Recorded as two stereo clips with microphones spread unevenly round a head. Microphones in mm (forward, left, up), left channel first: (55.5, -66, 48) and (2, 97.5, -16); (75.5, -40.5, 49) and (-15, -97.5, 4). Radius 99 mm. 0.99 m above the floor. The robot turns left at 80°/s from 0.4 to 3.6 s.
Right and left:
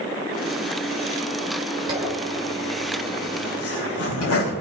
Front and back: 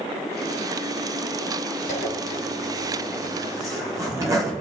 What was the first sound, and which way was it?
A zipper, 45° left.